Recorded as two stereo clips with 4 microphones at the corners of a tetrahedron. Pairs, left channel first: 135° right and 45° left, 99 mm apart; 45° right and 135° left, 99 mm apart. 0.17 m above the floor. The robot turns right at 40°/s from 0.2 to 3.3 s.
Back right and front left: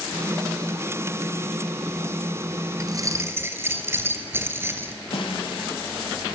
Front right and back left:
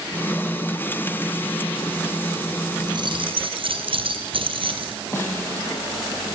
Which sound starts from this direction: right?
A snare drum, at 5.1 s.